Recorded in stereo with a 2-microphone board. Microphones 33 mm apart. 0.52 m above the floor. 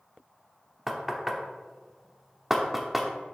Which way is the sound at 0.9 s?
5° right (ahead or behind).